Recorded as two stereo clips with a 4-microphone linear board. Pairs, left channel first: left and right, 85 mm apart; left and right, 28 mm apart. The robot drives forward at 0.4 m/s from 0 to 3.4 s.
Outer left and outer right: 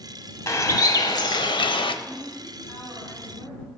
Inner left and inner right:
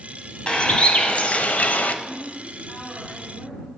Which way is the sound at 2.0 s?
60° left (ahead or behind).